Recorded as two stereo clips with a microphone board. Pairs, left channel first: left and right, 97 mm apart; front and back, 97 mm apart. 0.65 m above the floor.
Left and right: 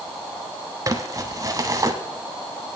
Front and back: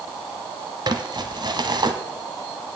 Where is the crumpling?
140° right, 1.0 m.